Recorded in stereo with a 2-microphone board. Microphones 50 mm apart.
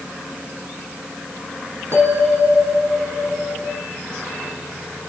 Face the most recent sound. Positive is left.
turn(degrees=-70)  # may be behind; listen again after turning